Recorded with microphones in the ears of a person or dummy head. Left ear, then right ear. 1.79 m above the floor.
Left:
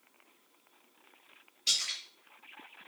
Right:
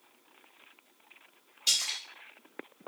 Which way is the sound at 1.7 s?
Centre (ahead or behind).